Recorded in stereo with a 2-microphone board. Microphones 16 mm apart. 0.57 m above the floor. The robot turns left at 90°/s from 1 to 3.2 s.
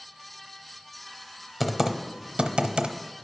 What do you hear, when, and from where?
1.6 s typing on a keyboard: 5° left (ahead or behind), 0.7 m; by 3.0 s 65° right (ahead or behind), 0.7 m